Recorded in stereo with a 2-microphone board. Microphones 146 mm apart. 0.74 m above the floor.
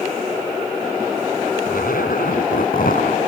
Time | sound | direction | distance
1.7 | a zipper | 80° left | ?